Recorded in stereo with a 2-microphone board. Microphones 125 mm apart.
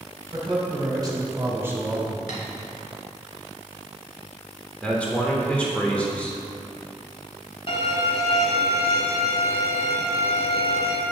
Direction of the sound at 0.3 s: 40° right (ahead or behind).